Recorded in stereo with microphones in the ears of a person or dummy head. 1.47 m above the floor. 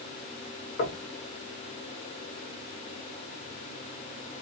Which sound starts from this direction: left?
Knocking, at 0.8 s.